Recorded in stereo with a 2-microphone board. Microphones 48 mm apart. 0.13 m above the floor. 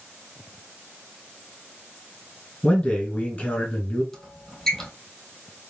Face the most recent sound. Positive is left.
turn(degrees=5)  # may be behind; listen again after turning